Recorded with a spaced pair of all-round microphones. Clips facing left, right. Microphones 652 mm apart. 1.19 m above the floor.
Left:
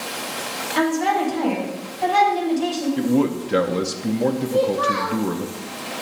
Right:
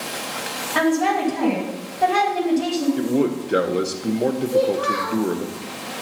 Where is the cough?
No cough in this recording.